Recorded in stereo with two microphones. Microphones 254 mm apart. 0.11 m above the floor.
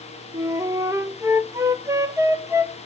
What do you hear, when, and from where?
0.3 s a flute: 10° right (ahead or behind), 0.9 m